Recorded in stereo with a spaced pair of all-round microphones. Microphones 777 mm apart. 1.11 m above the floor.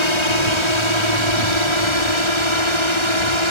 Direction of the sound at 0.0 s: 35° left (ahead or behind).